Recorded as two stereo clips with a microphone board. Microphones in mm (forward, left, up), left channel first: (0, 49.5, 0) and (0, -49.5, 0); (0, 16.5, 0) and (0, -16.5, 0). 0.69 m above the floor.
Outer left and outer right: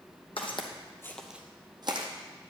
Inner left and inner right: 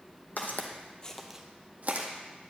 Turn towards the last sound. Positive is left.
turn(degrees=-55)  # may be behind; listen again after turning